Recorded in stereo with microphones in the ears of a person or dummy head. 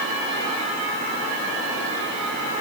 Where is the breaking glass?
No breaking glass in this recording.